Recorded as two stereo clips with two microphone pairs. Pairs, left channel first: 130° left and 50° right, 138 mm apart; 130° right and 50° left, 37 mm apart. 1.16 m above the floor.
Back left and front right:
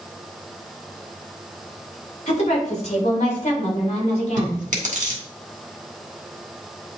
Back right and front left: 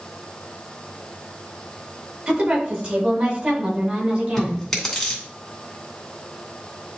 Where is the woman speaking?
95° left, 3 m; by 4.7 s 90° left, 4 m.